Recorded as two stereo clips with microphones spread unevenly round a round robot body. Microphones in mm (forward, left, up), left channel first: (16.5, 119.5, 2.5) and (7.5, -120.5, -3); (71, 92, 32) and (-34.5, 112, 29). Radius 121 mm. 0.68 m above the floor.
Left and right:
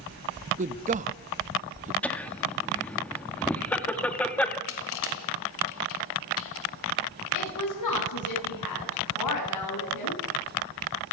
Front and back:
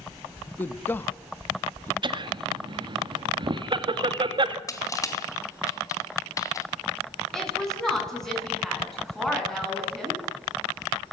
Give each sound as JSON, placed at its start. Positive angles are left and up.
{"t": 0.6, "sound": "a man speaking", "azimuth_deg": -70, "distance_m": 0.7}
{"t": 2.0, "sound": "laughter", "azimuth_deg": 170, "distance_m": 1.4}
{"t": 4.7, "sound": "crushing", "azimuth_deg": 50, "distance_m": 3.0}
{"t": 7.3, "sound": "a woman speaking", "azimuth_deg": 75, "distance_m": 9.5}